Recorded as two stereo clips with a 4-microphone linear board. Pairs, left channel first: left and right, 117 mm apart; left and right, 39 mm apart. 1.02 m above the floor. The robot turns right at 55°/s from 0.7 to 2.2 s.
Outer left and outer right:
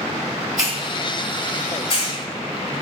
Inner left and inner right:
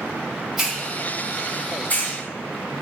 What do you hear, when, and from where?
0.6 s a hiss: 5° right (ahead or behind), 2.5 m; by 2.2 s 75° left (ahead or behind), 2.5 m